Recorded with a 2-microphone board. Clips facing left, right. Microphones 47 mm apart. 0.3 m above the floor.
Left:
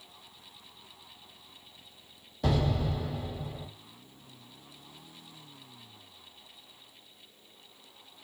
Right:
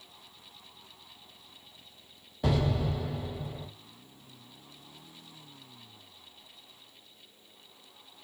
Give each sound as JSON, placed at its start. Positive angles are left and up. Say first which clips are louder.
{"t": 2.4, "sound": "an explosion", "louder": "even", "side_deg": -10, "distance_m": 1.7}